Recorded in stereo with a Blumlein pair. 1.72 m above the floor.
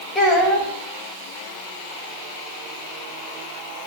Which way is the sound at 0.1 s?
10° left.